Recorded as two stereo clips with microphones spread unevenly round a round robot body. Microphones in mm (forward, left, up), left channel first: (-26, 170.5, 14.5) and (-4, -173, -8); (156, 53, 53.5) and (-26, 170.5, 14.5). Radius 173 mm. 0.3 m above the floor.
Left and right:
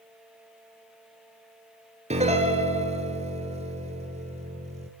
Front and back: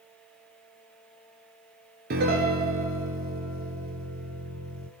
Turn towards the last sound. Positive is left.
turn(degrees=-160)